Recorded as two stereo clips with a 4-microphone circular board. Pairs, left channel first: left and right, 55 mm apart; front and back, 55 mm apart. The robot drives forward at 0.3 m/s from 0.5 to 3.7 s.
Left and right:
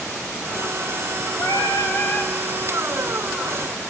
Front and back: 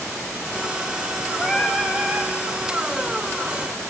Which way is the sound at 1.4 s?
100° left.